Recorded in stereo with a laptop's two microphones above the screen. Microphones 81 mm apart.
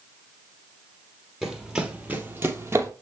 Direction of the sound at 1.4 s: 5° right (ahead or behind).